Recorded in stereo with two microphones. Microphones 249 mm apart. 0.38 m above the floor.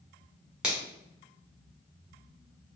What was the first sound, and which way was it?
A finger snap, 5° right (ahead or behind).